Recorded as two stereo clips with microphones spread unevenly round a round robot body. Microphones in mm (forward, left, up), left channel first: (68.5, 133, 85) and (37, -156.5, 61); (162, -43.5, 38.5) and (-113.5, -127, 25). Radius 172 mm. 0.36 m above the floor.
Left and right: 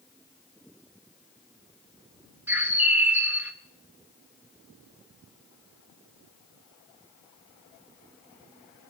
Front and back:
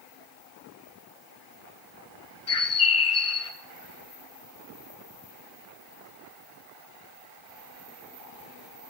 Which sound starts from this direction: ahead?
A bird, at 2.5 s.